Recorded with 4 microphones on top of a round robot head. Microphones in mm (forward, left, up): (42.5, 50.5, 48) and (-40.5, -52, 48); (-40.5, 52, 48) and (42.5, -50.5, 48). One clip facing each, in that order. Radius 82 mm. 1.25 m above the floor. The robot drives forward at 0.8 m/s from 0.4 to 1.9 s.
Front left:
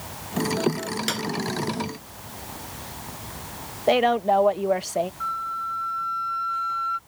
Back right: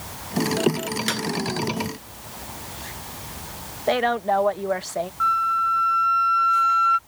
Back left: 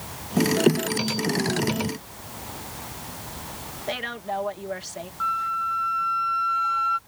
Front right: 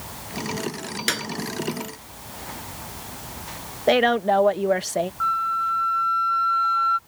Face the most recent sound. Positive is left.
turn(degrees=-150)